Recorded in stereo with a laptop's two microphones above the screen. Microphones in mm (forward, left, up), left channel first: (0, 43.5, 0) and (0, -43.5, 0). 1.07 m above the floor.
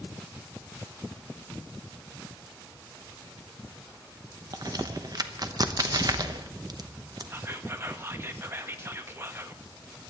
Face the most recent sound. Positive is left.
turn(degrees=-30)  # may be behind; listen again after turning